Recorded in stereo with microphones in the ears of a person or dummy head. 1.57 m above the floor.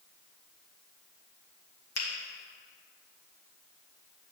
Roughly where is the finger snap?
Left.